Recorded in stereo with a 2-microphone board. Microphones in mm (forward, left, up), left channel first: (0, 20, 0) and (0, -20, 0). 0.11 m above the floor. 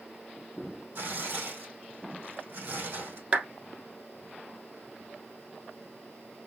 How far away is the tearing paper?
About 4 m.